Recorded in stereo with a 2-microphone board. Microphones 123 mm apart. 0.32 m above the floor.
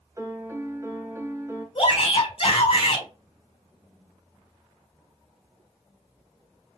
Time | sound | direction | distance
0.2 | a piano | 25° right (ahead or behind) | 0.9 m
1.8 | a shout | 55° left (ahead or behind) | 3 m